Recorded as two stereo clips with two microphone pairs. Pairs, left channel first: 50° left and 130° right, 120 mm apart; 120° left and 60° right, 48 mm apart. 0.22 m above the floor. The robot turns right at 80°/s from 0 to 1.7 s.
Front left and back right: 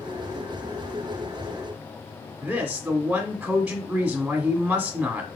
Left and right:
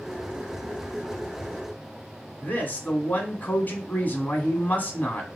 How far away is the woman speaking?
About 1.3 m.